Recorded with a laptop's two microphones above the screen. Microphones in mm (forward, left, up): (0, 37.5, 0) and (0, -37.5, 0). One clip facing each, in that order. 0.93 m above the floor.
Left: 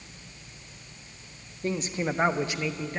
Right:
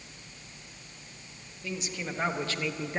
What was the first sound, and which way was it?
A man speaking, 50° left (ahead or behind).